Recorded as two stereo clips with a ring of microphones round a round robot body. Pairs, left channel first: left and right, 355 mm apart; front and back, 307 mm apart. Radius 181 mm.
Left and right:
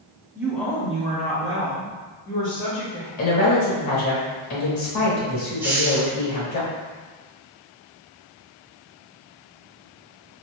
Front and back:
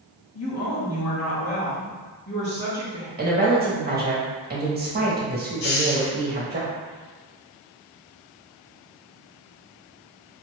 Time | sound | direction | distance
0.3 | a woman speaking | 10° right | 1.2 m
3.2 | a woman speaking | 125° left | 1.4 m
5.6 | a hiss | 5° right | 0.6 m